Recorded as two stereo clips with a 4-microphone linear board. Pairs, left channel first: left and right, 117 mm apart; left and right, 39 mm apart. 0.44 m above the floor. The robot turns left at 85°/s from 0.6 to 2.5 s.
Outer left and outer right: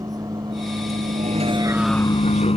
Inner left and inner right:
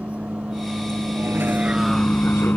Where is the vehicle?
30° right (ahead or behind); by 2.6 s 60° left (ahead or behind).